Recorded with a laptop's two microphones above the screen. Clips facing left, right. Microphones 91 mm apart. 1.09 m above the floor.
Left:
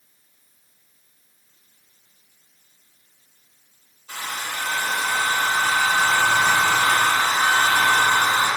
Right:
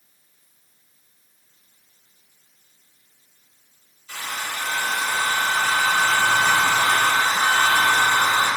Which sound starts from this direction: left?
A hair dryer, at 4.1 s.